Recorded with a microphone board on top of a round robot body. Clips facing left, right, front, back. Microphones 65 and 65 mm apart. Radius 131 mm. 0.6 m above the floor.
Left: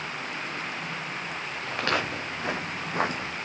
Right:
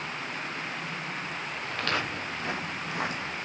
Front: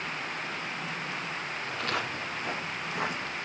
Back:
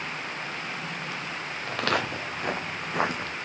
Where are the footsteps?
160° left, 4.5 m; by 3.3 s 145° left, 4 m.